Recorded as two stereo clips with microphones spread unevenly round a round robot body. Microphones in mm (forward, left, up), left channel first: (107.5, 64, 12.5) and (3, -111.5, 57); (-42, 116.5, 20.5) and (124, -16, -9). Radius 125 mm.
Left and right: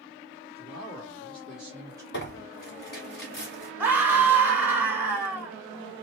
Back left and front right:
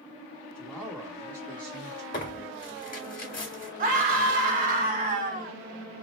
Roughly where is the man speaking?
Ahead left.